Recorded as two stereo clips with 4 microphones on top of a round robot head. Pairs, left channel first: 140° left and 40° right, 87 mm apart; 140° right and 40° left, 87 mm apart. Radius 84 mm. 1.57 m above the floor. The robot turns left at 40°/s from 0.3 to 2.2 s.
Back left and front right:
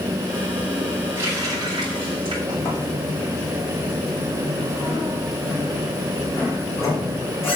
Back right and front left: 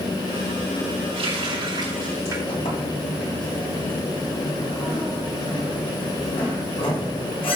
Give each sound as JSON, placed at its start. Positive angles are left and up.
{"t": 1.1, "sound": "a running tap", "azimuth_deg": 25, "distance_m": 5.0}
{"t": 2.5, "sound": "a sliding door", "azimuth_deg": -155, "distance_m": 5.5}